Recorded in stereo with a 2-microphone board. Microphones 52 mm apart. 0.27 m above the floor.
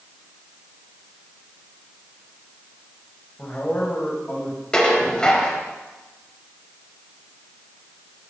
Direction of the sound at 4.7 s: 15° left (ahead or behind).